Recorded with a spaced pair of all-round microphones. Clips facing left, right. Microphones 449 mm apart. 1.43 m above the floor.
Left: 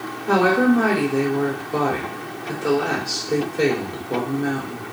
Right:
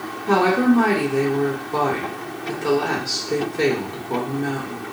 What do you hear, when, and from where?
0.3 s a woman speaking: 10° right (ahead or behind), 0.9 m